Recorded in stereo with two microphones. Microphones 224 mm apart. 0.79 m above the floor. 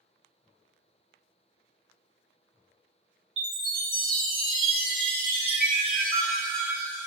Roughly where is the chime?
Centre.